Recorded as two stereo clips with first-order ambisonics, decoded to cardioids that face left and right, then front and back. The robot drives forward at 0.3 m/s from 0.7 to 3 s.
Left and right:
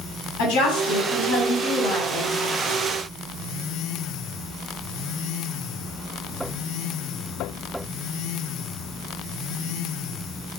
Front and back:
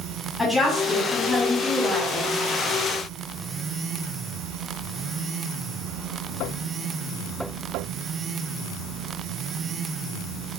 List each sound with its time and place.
0.4 s a woman speaking: 85° left, 1.8 m; by 2.3 s 100° left, 1.8 m